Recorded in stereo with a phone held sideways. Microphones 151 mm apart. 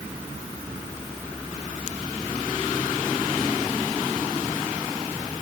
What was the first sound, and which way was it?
Only background noise.